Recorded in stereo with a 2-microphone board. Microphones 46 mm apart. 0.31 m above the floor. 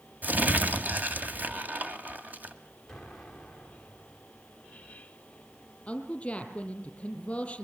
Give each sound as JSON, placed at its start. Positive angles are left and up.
{"t": 0.2, "sound": "crumpling", "side_deg": -35, "distance_m": 2.0}
{"t": 2.9, "sound": "an explosion", "side_deg": 0, "distance_m": 4.0}
{"t": 5.9, "sound": "a woman speaking", "side_deg": 25, "distance_m": 4.5}